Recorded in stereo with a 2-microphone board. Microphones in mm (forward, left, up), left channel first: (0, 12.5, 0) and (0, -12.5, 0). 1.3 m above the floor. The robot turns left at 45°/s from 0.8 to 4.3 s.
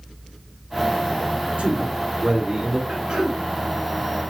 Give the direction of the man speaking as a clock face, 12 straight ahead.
4 o'clock.